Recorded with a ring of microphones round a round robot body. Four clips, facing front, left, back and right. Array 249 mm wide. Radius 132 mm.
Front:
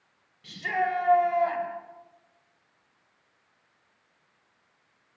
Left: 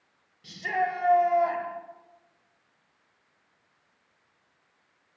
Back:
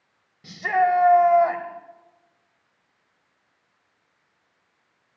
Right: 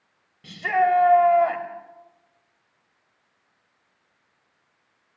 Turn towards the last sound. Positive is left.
turn(degrees=-140)